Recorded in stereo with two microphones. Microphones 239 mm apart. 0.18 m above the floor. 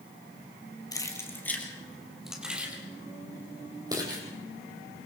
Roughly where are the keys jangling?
Centre.